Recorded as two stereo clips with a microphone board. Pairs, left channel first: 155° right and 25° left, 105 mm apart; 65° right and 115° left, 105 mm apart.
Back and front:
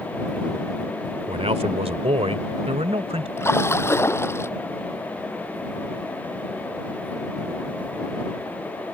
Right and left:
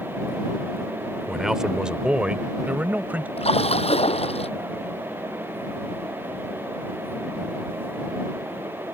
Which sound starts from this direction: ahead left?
A man speaking, at 1.3 s.